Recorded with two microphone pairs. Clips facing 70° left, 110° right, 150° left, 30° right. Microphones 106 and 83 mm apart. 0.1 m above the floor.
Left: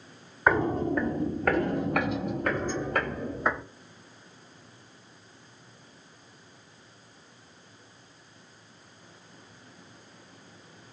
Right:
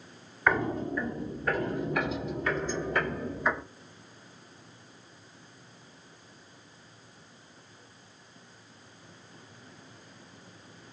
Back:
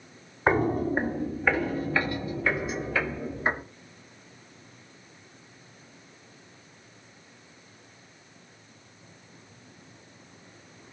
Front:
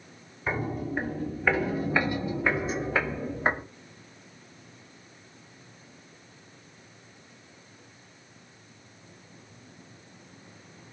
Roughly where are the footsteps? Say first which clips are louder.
Left 3 dB, back 7 dB; behind left.